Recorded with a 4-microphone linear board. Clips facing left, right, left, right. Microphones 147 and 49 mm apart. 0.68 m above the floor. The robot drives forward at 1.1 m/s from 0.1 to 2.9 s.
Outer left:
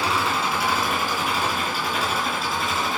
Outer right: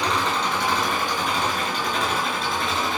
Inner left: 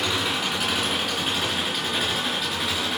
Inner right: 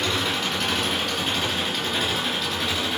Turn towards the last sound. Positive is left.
turn(degrees=5)  # may be behind; listen again after turning